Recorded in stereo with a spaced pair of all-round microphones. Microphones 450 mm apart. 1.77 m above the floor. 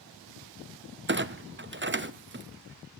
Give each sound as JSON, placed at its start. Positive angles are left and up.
{"t": 1.1, "sound": "a clunk", "side_deg": -25, "distance_m": 0.6}